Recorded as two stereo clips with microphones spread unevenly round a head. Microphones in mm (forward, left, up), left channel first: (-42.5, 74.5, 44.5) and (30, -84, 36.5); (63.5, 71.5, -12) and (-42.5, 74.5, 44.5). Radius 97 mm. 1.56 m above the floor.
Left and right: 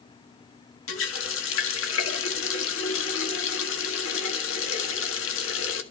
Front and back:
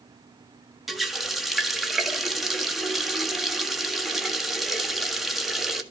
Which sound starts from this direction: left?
A running tap, at 0.9 s.